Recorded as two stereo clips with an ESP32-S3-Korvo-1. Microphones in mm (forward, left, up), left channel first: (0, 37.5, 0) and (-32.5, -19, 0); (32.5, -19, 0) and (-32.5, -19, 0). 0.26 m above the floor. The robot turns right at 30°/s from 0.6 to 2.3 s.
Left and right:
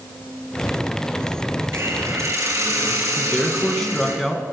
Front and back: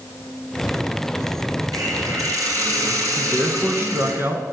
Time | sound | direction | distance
1.7 | a hiss | 175° right | 5 m
3.2 | a man speaking | 140° left | 2.5 m